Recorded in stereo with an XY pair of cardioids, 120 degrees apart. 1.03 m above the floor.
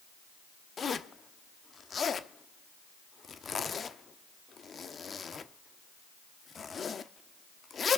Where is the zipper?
35° left, 1.0 m.